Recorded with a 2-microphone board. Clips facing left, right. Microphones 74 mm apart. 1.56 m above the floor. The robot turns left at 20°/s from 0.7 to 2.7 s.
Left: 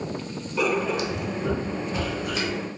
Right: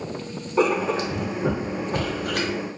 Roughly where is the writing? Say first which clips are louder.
Right 3 dB; ahead right.